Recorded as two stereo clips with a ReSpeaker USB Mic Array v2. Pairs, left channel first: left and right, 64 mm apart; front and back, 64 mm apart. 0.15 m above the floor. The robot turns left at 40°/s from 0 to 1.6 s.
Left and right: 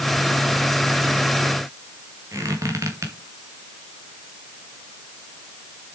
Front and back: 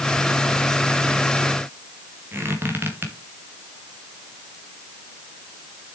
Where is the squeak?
125° right, 3 m.